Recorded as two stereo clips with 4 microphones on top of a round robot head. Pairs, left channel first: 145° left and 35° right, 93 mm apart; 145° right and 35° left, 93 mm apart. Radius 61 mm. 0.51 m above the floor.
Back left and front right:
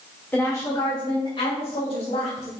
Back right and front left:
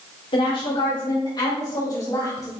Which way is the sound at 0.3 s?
145° right.